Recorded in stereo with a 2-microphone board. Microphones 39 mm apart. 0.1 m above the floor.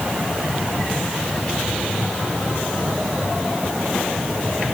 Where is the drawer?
I don't hear a drawer.